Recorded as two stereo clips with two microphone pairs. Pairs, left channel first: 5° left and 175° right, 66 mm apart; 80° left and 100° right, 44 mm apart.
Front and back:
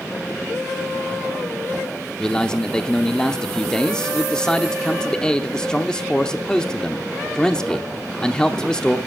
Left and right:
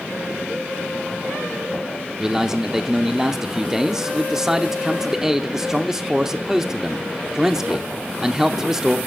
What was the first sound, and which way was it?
A man speaking, 45° right.